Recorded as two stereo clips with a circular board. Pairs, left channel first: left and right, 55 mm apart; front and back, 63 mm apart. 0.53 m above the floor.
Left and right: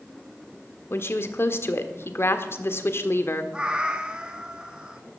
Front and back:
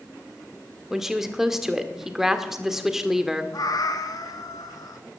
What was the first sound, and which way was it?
A woman speaking, 100° left.